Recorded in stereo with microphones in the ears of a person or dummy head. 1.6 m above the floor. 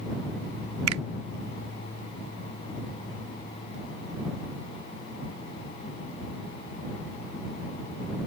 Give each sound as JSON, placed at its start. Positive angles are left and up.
{"t": 0.9, "sound": "a finger snap", "side_deg": -85}